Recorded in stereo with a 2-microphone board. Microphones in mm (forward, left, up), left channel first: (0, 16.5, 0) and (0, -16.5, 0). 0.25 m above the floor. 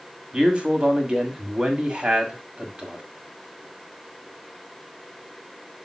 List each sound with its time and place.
0.3 s a man speaking: 30° right (ahead or behind), 1.8 m